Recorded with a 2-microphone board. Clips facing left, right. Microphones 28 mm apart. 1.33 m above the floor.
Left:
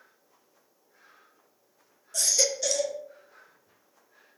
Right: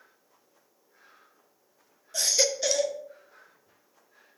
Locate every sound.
2.1 s a baby crying: 25° right (ahead or behind), 0.8 m